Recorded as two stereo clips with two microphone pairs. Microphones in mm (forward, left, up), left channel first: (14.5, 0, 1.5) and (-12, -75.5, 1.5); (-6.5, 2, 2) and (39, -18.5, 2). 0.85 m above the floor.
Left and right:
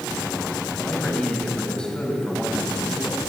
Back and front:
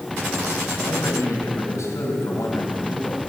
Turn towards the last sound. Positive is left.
turn(degrees=150)